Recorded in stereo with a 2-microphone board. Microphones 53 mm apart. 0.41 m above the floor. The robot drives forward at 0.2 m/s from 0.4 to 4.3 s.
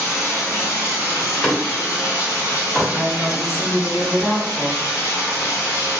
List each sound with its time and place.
0.0 s running water: 65° left (ahead or behind), 1.6 m; by 6.0 s 80° left, 1.4 m
1.1 s a door slam: 20° left (ahead or behind), 1.2 m; by 2.9 s 15° left (ahead or behind), 1.4 m
2.9 s a woman speaking: centre (ahead or behind), 1.5 m